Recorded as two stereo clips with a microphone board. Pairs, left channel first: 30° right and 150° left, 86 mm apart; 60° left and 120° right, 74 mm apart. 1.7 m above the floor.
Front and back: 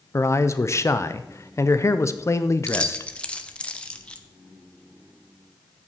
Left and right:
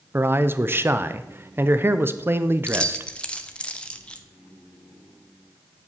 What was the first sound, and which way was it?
A man speaking, 75° right.